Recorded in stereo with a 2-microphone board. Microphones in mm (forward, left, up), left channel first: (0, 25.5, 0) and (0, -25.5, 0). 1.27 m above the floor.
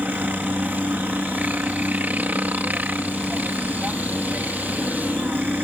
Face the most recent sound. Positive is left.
turn(degrees=-30)  # may be behind; listen again after turning